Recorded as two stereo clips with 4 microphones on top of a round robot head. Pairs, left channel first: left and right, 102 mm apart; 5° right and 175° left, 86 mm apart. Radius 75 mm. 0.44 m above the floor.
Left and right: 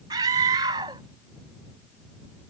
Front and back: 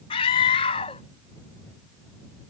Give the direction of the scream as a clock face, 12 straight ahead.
1 o'clock.